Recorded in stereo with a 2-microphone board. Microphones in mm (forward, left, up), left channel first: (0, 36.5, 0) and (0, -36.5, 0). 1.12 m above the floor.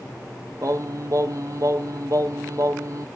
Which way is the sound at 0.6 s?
50° right (ahead or behind).